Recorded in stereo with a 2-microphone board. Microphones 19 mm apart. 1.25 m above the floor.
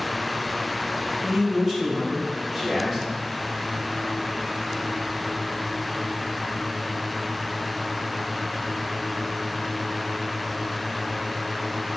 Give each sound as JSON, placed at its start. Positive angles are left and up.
{"t": 1.2, "sound": "a man speaking", "side_deg": -20, "distance_m": 1.0}